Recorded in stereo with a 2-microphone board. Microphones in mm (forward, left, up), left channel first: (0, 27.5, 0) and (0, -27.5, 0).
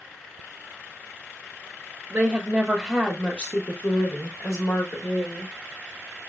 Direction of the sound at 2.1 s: 30° right (ahead or behind).